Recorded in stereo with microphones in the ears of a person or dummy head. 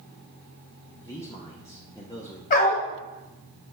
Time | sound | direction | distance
1.0 | a man speaking | 20° left (ahead or behind) | 0.7 m
2.5 | a dog barking | 35° left (ahead or behind) | 1.6 m